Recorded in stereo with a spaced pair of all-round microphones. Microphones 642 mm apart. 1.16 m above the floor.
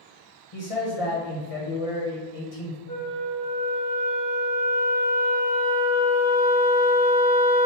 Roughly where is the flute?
Left.